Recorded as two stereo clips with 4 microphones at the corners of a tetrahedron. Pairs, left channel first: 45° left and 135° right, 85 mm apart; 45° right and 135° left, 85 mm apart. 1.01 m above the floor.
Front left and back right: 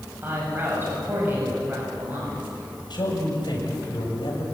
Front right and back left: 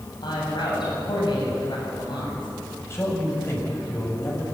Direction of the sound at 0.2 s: 70° right.